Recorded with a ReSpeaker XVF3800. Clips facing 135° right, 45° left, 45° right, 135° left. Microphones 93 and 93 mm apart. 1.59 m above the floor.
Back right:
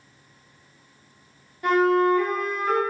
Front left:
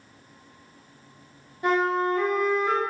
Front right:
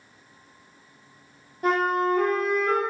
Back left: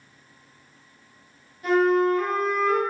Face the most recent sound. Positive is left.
turn(degrees=-20)